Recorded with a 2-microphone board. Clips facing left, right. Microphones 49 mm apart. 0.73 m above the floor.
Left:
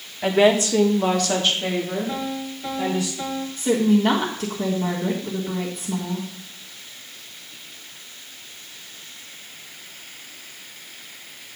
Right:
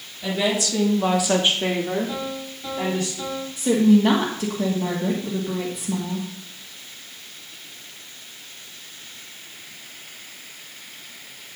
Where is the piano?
20° left (ahead or behind), 2.5 m.